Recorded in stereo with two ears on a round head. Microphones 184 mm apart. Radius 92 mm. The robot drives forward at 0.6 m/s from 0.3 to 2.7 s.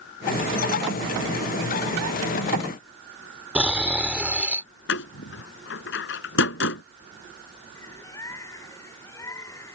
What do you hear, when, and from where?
3.5 s snoring: 5° right (ahead or behind)
4.9 s a door slam: 65° left (ahead or behind)
7.8 s a bird: 15° left (ahead or behind)